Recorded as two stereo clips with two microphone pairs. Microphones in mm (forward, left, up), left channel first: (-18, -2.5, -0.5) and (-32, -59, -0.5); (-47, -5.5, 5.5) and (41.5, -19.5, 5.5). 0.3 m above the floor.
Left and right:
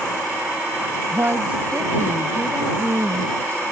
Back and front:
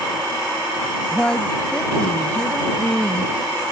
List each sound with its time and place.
1.1 s a woman speaking: 115° right